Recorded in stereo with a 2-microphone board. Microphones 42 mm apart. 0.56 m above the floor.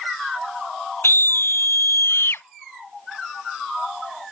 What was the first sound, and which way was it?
A scream, 80° left.